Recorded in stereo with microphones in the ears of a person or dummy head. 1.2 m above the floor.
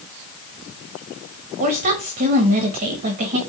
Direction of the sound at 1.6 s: 45° right (ahead or behind).